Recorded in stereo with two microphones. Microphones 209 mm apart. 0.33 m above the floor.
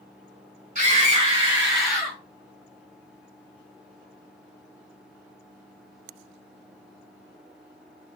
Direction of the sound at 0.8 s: 35° right (ahead or behind).